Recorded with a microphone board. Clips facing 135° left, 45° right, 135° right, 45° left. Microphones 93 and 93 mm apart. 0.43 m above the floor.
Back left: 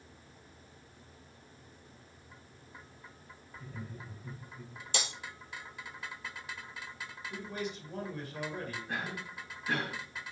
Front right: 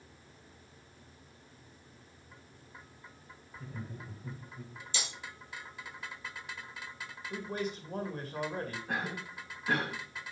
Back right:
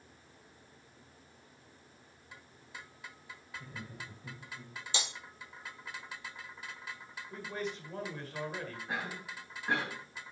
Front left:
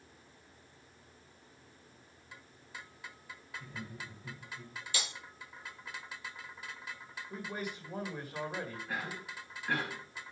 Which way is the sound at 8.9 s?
65° right.